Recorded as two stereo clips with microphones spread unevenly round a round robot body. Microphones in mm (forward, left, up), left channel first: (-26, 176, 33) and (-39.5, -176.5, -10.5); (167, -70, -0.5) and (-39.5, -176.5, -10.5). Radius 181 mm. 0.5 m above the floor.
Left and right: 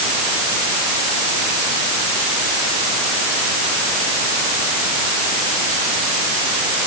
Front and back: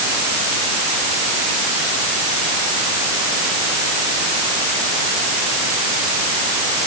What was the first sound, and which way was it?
Only background noise.